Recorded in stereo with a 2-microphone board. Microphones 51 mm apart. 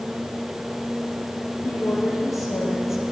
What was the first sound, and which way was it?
A woman speaking, 75° left (ahead or behind).